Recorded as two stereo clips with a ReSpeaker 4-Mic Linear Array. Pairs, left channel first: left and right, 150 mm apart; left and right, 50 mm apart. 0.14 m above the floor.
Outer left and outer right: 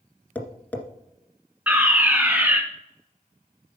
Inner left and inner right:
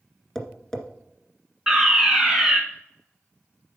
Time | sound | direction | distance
0.3 | tapping | 10° left (ahead or behind) | 1.7 m
1.7 | a fire alarm | 10° right (ahead or behind) | 2.5 m